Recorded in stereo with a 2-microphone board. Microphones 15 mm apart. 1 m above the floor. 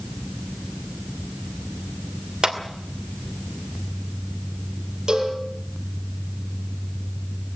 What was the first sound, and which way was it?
A clap, 70° right (ahead or behind).